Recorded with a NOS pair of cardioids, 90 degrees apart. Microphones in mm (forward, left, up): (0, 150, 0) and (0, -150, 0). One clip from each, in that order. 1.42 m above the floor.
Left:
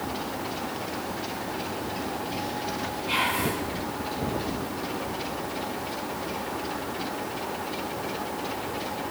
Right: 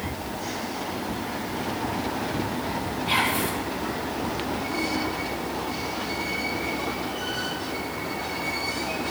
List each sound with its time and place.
3.1 s whispering: 45° right, 3 m